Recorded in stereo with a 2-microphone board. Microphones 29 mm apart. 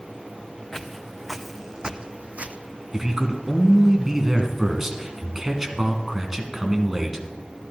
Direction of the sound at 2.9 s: 20° right (ahead or behind).